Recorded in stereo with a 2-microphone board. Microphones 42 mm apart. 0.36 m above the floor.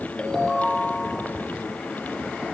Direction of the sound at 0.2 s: 15° left (ahead or behind).